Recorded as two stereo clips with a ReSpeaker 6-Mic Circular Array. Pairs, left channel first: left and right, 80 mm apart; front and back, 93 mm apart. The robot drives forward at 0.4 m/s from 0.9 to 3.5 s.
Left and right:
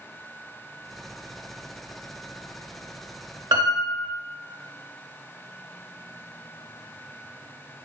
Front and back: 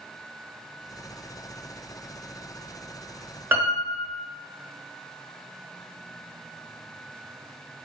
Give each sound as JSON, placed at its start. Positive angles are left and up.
{"t": 3.5, "sound": "a piano", "azimuth_deg": -115, "distance_m": 0.8}